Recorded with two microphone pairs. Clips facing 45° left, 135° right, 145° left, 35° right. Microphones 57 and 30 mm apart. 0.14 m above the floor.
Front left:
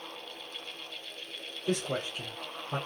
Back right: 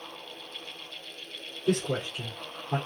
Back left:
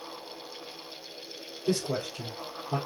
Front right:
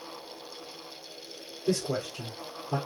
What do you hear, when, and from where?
1.7 s a man speaking: 115° right, 2.5 m